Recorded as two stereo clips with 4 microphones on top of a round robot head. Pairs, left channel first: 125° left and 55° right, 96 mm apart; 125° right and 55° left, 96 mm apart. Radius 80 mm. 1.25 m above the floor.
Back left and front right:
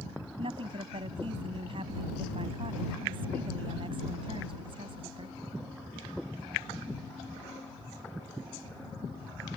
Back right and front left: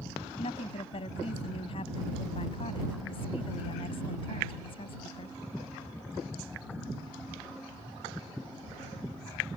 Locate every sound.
0.4 s a woman speaking: 90° right